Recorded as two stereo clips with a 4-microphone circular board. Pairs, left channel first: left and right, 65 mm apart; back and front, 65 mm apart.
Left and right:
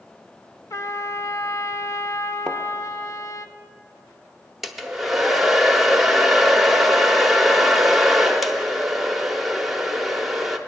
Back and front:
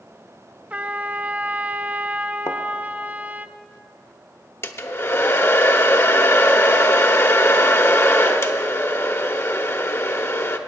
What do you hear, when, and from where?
0.7 s a trumpet: 65° left, 0.5 m
2.5 s a thud: 165° left, 1.1 m
4.6 s a hair dryer: 175° right, 0.8 m